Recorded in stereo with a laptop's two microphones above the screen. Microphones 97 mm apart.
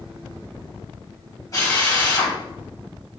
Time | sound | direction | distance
1.5 | a drill | 35° left (ahead or behind) | 3.5 m